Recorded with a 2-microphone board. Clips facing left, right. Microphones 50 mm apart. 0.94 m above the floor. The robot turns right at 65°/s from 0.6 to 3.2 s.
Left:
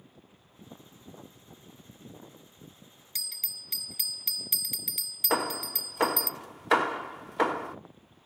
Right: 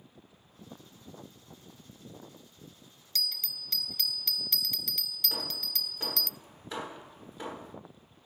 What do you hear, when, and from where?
3.1 s a bell: 15° left (ahead or behind), 0.5 m; by 6.3 s 10° left (ahead or behind), 0.5 m
5.3 s hammering: 70° left (ahead or behind), 1.0 m